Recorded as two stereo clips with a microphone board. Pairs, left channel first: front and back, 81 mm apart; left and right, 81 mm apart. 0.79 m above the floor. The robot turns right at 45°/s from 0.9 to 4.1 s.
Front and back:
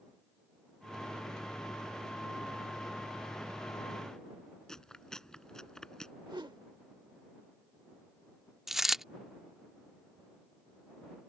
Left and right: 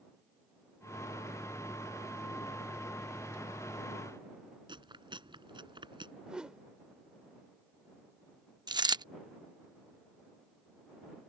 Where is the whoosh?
170° right.